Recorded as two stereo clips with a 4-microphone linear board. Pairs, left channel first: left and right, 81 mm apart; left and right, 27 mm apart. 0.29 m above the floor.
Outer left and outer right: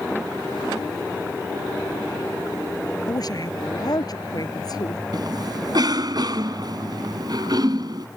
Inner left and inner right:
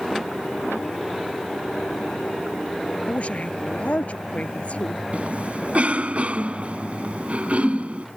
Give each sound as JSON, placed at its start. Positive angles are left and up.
{"t": 3.1, "sound": "a woman speaking", "side_deg": 50}
{"t": 5.1, "sound": "a cough", "side_deg": -55}